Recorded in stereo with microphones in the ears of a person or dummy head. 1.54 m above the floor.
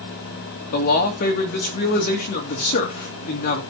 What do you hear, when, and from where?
0.7 s a man speaking: 40° left (ahead or behind), 2.5 m